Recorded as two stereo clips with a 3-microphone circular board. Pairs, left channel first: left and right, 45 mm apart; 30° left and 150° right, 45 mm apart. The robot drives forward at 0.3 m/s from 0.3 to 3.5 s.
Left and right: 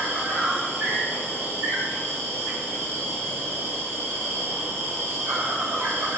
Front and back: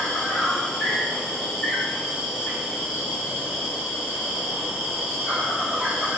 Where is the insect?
50° right, 1.6 m; by 6.2 s 90° right, 1.3 m.